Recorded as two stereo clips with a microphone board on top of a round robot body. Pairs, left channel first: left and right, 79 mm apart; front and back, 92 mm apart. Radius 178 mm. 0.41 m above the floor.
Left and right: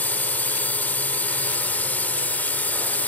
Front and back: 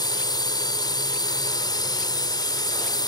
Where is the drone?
25° left.